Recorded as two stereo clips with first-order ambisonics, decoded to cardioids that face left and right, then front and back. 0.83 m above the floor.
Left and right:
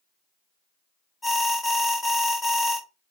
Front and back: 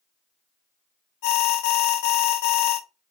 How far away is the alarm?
About 0.9 m.